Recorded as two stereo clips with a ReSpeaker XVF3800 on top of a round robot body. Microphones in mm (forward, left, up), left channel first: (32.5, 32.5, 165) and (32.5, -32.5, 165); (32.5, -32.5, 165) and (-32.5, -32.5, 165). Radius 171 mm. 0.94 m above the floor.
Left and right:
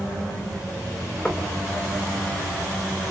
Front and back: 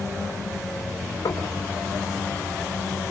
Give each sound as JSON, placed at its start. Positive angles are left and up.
{"t": 1.2, "sound": "knocking", "azimuth_deg": 15, "distance_m": 4.0}